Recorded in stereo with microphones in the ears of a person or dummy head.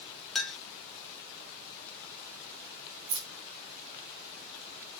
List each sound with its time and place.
0.3 s a clink: centre (ahead or behind), 0.5 m
3.1 s keys jangling: 60° right (ahead or behind), 0.6 m